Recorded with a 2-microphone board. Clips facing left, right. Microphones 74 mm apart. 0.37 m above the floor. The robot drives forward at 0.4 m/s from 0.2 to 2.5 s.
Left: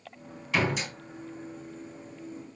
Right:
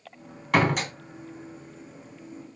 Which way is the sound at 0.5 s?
55° right (ahead or behind).